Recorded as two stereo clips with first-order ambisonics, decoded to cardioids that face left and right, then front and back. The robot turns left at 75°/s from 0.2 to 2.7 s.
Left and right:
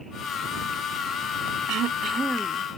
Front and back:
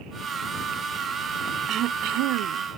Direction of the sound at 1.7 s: 125° right.